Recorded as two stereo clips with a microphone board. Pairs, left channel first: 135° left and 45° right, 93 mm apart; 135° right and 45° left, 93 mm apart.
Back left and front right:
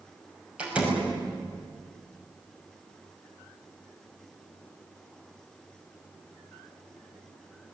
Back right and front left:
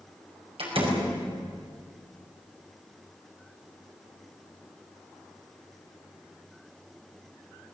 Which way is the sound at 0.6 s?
30° left.